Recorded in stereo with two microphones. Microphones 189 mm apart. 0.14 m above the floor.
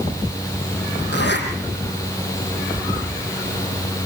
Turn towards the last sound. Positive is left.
turn(degrees=65)  # may be behind; listen again after turning